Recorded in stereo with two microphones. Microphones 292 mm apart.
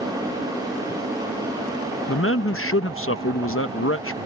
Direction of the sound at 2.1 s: 50° left (ahead or behind).